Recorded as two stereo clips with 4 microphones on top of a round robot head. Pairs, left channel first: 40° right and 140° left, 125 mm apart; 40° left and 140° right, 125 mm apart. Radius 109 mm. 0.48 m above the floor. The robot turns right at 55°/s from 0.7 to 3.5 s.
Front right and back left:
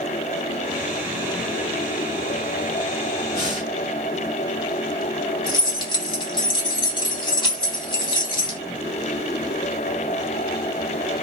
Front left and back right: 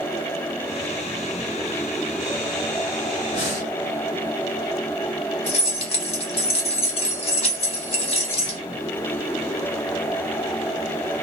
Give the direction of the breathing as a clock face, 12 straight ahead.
12 o'clock.